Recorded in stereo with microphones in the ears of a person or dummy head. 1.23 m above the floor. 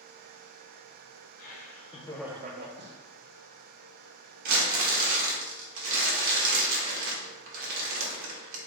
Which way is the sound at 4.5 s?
55° right (ahead or behind).